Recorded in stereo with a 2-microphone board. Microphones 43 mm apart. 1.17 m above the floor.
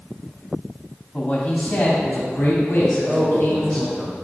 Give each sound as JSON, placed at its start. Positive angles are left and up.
{"t": 1.1, "sound": "a man speaking", "side_deg": 35, "distance_m": 2.5}
{"t": 2.9, "sound": "a man speaking", "side_deg": 10, "distance_m": 4.0}